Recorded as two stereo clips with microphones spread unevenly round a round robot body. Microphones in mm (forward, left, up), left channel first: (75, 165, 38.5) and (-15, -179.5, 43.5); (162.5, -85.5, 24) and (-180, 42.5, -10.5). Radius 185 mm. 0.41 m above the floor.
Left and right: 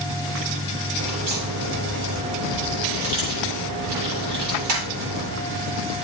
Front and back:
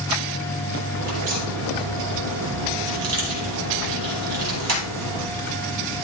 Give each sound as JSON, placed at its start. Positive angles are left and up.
{"t": 1.0, "sound": "a crack", "azimuth_deg": -150, "distance_m": 6.0}